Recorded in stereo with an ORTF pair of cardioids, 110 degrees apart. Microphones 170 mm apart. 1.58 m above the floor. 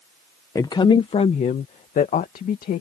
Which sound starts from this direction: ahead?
A woman speaking, at 0.6 s.